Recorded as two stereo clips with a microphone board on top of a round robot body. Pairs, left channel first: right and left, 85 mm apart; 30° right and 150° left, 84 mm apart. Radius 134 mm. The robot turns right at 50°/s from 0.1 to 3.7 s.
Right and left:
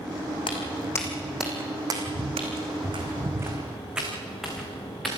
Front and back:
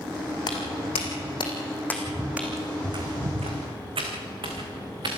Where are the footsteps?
65° right, 3 m; by 5.1 s straight behind, 5 m.